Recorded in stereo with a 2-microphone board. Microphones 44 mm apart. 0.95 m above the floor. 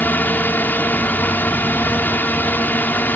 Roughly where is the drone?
Left.